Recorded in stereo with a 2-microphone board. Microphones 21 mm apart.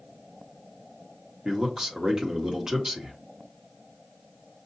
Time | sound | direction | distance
1.4 | a man speaking | 30° right (ahead or behind) | 1.3 m